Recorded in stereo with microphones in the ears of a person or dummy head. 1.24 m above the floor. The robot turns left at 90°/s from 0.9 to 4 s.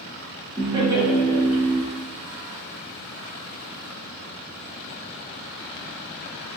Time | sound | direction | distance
0.6 | laughter | 155° right | 1.0 m